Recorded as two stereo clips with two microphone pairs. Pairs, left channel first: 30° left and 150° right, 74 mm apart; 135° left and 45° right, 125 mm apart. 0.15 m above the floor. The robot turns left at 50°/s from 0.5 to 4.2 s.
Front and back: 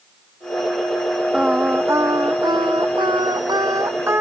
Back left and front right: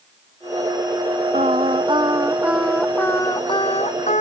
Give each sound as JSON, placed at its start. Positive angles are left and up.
{"t": 1.3, "sound": "singing", "azimuth_deg": -70}